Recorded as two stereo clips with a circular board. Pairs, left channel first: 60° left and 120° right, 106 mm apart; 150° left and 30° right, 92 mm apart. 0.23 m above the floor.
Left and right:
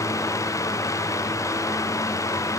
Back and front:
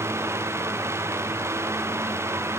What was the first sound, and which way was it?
Only background noise.